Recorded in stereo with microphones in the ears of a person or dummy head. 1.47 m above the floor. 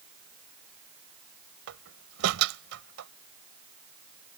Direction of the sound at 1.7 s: 75° right (ahead or behind).